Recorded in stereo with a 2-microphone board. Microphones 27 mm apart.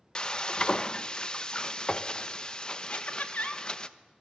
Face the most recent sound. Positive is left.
turn(degrees=65)  # may be behind; listen again after turning